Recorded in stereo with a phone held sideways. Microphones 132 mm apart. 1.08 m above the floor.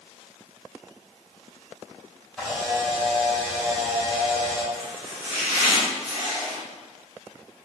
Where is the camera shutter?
5° left (ahead or behind), 1.7 m.